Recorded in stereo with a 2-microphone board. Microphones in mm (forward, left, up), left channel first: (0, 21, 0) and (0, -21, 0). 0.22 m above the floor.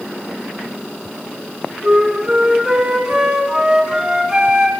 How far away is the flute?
About 2 m.